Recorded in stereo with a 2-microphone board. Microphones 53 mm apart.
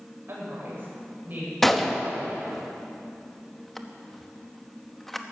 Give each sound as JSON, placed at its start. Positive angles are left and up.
{"t": 0.3, "sound": "a woman speaking", "side_deg": -45, "distance_m": 6.0}
{"t": 1.6, "sound": "a gunshot", "side_deg": 5, "distance_m": 0.9}